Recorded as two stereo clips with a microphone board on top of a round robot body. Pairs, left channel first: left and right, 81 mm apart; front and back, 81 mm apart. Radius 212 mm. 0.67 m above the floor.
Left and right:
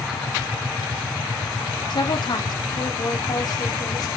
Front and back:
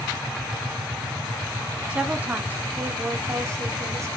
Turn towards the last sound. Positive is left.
turn(degrees=130)